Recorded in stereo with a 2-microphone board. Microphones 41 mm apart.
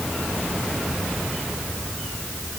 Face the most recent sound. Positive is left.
No sound to turn to.